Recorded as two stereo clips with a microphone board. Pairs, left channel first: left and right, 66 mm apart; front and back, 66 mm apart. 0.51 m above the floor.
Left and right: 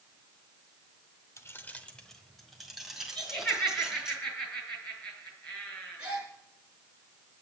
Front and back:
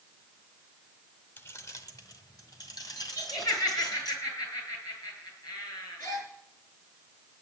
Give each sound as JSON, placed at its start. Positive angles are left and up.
{"t": 1.4, "sound": "keys jangling", "azimuth_deg": 50, "distance_m": 0.8}
{"t": 3.1, "sound": "laughter", "azimuth_deg": 15, "distance_m": 8.0}
{"t": 6.0, "sound": "a gasp", "azimuth_deg": -20, "distance_m": 4.0}